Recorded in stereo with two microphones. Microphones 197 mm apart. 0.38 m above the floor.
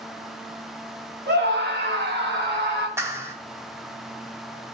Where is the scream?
65° right (ahead or behind), 3 m; by 2.9 s 70° right (ahead or behind), 3.5 m.